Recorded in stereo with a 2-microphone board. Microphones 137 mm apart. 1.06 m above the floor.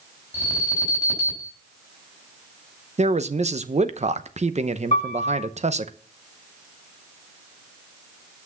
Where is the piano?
45° left (ahead or behind), 1.8 m.